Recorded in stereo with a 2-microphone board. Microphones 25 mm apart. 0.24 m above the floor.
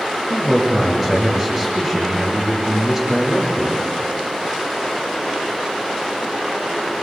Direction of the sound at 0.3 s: 5° right (ahead or behind).